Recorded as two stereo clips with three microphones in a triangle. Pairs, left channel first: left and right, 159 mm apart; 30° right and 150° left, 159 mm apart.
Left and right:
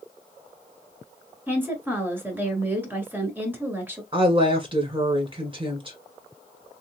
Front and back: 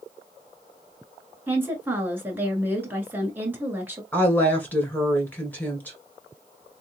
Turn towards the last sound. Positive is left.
turn(degrees=-100)